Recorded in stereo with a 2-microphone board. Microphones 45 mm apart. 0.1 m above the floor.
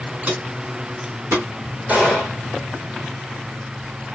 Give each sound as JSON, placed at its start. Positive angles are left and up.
{"t": 0.2, "sound": "footsteps", "side_deg": -35, "distance_m": 2.5}
{"t": 1.9, "sound": "a gunshot", "side_deg": -40, "distance_m": 1.5}